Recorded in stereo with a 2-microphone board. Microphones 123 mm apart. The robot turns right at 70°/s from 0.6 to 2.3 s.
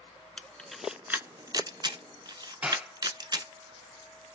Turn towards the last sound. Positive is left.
turn(degrees=-15)  # may be behind; listen again after turning